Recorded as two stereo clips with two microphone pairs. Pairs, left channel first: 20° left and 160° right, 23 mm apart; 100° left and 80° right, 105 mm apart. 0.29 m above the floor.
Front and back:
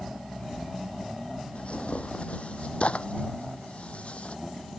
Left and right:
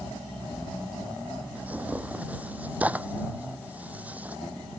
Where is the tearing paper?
5° right.